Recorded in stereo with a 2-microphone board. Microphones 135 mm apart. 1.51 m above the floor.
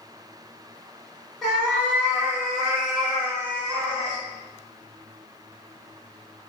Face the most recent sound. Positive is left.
turn(degrees=-45)  # may be behind; listen again after turning